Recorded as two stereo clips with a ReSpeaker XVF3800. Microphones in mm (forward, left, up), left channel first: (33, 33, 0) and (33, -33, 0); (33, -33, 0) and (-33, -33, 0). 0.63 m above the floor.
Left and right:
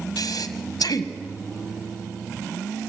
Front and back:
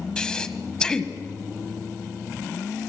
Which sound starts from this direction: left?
Breathing, at 0.2 s.